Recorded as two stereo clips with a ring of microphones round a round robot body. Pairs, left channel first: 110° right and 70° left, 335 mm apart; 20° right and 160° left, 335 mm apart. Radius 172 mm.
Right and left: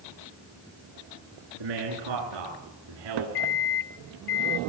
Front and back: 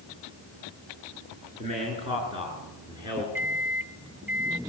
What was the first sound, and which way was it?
A man speaking, 85° left.